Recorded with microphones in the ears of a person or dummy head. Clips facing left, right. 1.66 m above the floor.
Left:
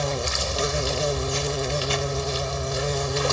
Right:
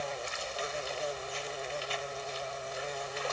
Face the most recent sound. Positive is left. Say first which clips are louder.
# left 10 dB
turn(degrees=80)